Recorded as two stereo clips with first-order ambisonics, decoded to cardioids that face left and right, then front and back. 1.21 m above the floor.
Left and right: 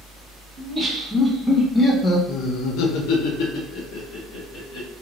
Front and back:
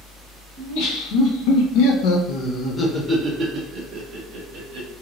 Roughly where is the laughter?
Ahead.